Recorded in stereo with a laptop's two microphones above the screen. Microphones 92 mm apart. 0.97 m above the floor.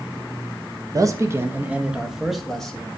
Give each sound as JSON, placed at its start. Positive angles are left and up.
{"t": 0.9, "sound": "a man speaking", "side_deg": -40, "distance_m": 1.3}